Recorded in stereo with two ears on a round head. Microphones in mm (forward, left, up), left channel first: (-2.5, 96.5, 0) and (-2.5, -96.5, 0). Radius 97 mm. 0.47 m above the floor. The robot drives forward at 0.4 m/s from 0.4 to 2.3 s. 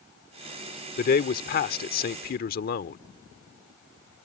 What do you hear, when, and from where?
1.0 s a man speaking: 40° left (ahead or behind)